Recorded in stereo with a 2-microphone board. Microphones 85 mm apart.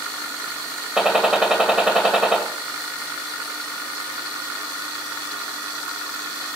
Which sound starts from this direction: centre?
A gunshot, at 1.0 s.